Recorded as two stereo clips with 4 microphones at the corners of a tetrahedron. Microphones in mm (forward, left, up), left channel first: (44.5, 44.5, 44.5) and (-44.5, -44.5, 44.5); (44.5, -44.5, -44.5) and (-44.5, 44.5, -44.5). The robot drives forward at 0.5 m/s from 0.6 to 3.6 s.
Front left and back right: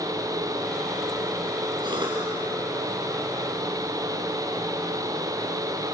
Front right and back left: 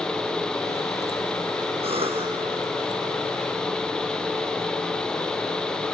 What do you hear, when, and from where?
1.8 s a cough: 175° left, 5.5 m